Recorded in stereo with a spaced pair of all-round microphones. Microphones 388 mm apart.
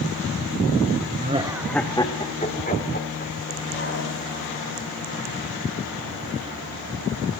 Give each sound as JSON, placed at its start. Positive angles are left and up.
{"t": 1.2, "sound": "laughter", "side_deg": -25, "distance_m": 0.9}